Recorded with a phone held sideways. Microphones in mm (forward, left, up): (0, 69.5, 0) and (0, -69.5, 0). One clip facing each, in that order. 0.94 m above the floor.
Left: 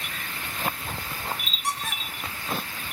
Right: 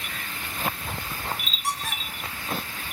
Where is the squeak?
Centre (ahead or behind), 4.5 m.